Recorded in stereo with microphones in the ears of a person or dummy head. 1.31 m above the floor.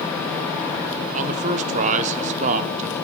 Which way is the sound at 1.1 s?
35° right (ahead or behind).